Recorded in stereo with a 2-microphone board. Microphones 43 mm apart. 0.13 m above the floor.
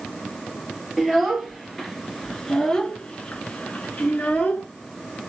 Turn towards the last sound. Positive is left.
turn(degrees=35)  # may be behind; listen again after turning